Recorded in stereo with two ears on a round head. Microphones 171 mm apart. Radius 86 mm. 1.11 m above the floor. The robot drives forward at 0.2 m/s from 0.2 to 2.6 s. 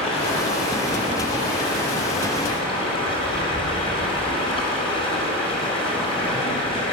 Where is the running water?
35° left (ahead or behind), 4 m; by 6.9 s 30° left (ahead or behind), 4 m.